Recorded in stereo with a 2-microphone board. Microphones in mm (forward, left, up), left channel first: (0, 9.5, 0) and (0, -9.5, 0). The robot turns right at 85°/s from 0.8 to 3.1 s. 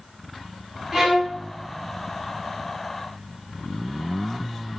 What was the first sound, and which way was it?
A violin, 120° right.